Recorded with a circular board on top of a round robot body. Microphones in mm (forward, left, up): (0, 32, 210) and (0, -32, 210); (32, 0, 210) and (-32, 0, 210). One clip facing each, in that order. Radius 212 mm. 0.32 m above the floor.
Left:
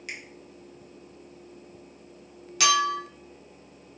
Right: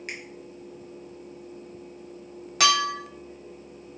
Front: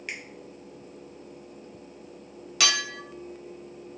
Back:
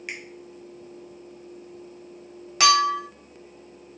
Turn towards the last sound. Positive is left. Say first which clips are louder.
# even, back 10 dB
turn(degrees=-125)